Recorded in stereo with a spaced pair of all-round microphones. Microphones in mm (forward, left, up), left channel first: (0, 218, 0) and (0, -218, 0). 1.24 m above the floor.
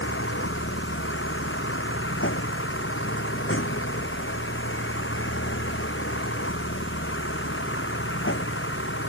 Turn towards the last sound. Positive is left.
turn(degrees=25)  # may be behind; listen again after turning